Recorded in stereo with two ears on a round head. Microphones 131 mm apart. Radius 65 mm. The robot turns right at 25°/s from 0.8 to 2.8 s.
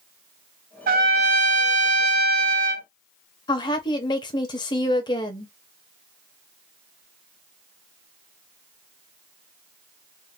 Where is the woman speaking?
30° left (ahead or behind), 0.8 m.